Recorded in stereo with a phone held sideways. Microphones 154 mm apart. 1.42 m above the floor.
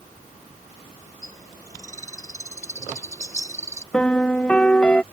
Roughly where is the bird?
Left.